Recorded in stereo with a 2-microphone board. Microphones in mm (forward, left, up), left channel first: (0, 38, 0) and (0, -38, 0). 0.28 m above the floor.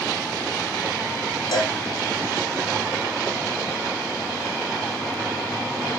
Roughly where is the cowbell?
Left.